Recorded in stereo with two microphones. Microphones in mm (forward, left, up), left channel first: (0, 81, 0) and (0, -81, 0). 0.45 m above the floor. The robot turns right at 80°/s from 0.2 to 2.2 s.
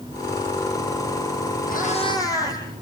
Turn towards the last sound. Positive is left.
turn(degrees=160)